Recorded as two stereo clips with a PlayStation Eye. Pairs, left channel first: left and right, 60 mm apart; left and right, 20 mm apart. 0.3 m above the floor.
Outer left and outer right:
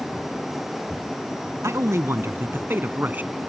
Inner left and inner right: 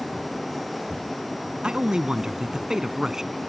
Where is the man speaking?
50° right (ahead or behind); by 3.4 s 25° right (ahead or behind).